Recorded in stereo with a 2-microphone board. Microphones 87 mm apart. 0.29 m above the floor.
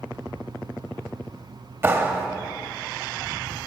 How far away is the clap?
About 0.9 m.